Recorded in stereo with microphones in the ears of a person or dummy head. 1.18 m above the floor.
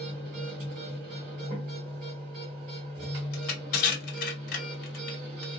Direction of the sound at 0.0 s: 30° right (ahead or behind).